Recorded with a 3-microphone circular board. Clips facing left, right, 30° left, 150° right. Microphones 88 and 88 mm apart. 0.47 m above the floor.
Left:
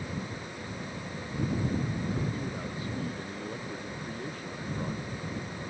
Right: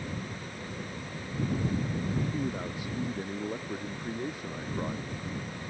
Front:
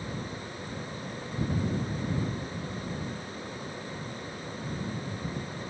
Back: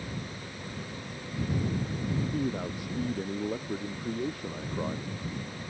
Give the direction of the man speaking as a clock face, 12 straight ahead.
5 o'clock.